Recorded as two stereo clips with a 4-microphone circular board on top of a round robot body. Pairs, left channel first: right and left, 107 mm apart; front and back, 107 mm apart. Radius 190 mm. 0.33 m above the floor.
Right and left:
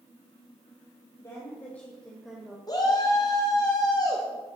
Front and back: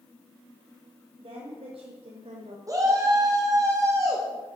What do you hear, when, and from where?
1.2 s a woman speaking: 150° right, 2 m; by 2.6 s 170° left, 1.7 m
2.7 s a shout: 130° right, 1.7 m